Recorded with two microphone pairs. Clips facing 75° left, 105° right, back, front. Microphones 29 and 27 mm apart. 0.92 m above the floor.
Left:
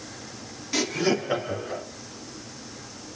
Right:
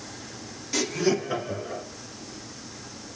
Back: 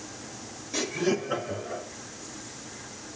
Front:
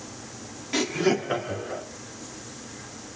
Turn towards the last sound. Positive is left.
turn(degrees=25)